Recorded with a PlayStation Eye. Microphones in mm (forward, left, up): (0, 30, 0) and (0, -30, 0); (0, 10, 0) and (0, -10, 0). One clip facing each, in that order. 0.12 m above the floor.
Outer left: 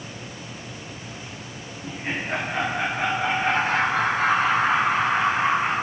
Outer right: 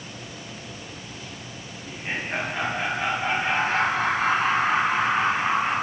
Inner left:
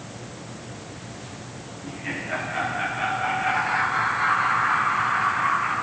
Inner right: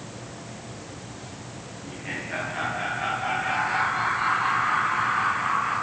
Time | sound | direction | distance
1.8 | laughter | 65° left (ahead or behind) | 9 m